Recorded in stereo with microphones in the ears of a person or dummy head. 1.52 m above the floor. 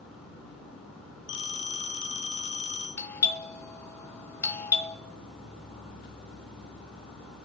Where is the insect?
5° left (ahead or behind), 5 m.